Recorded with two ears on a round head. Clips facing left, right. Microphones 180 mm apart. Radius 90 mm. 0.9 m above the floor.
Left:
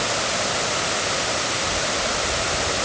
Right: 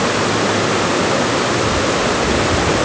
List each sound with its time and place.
0.0 s running water: 75° right (ahead or behind)